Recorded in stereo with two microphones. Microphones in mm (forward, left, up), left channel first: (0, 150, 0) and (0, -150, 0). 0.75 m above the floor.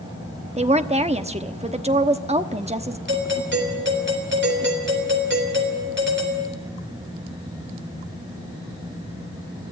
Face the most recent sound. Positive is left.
turn(degrees=-40)  # may be behind; listen again after turning